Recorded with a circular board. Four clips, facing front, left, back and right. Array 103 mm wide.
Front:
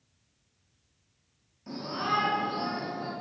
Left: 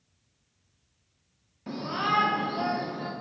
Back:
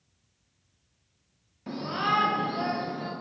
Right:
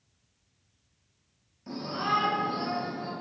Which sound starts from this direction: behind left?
A shout, at 1.7 s.